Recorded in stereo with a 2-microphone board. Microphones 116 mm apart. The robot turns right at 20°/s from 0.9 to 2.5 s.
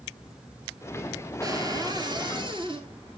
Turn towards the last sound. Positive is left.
turn(degrees=-45)  # may be behind; listen again after turning